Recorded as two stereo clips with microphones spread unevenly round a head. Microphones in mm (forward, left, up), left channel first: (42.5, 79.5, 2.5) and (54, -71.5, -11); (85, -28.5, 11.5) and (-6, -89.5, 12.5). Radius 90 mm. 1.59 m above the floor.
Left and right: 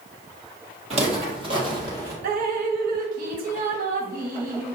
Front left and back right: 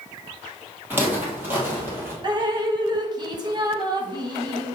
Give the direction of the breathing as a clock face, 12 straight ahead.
I don't hear breathing.